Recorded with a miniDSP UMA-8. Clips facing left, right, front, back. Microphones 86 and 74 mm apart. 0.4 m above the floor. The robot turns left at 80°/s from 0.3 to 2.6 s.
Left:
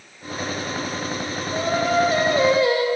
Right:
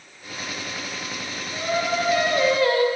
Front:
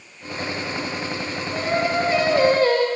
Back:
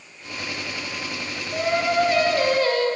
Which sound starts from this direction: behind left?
Singing, at 1.5 s.